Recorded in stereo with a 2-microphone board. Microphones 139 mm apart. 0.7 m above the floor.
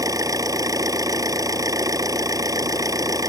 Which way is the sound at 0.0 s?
25° right (ahead or behind).